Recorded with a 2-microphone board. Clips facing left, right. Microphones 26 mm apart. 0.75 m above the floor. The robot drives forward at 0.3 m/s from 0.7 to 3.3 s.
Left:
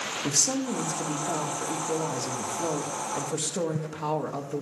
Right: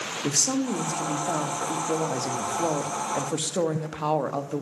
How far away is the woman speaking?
About 1.9 m.